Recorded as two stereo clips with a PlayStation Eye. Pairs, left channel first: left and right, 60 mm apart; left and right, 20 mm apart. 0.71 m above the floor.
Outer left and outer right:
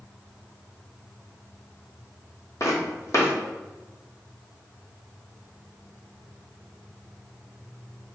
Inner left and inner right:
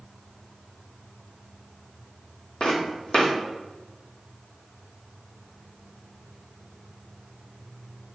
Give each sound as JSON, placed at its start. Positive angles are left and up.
{"t": 2.6, "sound": "footsteps", "side_deg": 55, "distance_m": 1.6}